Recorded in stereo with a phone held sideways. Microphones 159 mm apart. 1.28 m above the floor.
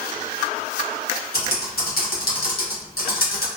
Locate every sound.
1.3 s typing on a keyboard: 75° left (ahead or behind), 0.9 m